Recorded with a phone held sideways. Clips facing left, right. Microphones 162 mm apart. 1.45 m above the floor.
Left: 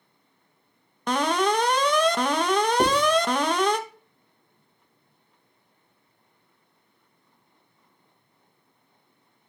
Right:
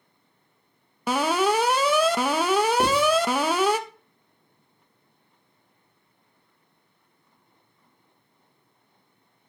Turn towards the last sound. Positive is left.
turn(degrees=15)  # may be behind; listen again after turning